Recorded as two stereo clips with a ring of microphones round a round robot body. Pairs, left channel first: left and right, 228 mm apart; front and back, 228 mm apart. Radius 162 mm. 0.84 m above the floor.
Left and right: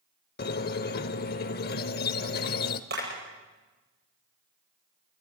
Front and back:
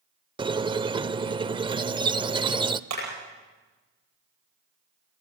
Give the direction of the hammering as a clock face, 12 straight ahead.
5 o'clock.